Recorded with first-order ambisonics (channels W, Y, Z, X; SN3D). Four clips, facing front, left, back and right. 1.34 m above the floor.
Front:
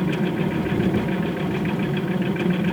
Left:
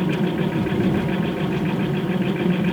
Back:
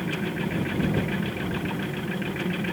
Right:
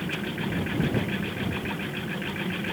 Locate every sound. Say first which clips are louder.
0.0 s an aircraft: left 9 dB, front 6 dB; 60° left